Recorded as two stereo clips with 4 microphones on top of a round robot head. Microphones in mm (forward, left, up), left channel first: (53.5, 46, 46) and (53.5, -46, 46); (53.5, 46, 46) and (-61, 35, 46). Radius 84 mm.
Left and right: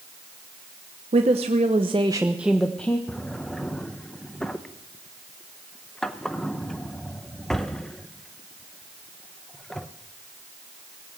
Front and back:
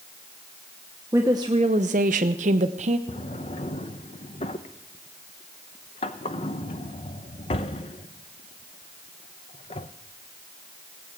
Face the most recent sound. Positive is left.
turn(degrees=10)